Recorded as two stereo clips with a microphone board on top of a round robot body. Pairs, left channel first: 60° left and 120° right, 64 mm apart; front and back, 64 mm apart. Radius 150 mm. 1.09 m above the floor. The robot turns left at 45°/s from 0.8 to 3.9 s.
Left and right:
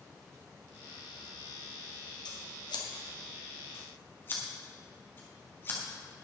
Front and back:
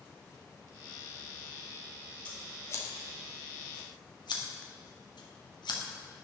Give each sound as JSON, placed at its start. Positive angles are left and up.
{"t": 2.2, "sound": "scissors", "azimuth_deg": 75, "distance_m": 2.0}